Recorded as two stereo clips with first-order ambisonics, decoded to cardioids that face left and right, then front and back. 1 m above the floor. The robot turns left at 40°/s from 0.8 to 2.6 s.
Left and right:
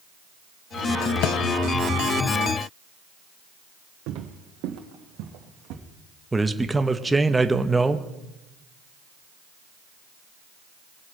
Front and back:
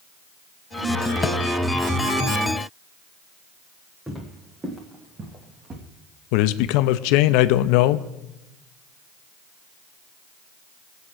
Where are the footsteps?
95° right, 1.9 m; by 5.8 s 120° right, 2.5 m.